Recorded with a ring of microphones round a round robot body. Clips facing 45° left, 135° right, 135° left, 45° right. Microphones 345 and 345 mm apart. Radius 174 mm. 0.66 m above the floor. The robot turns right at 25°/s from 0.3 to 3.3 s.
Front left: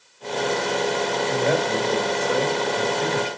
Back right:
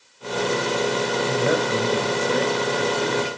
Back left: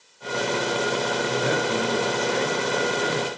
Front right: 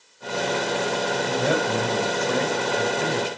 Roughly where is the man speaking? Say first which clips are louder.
Even, front right 2 dB; right.